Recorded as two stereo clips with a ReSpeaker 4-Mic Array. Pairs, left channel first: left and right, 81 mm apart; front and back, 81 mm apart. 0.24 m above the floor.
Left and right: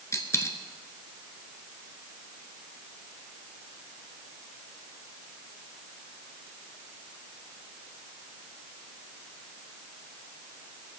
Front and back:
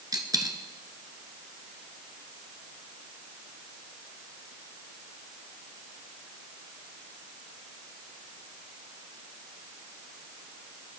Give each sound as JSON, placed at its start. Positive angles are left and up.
{"t": 0.1, "sound": "a dropped coin", "azimuth_deg": 140, "distance_m": 1.1}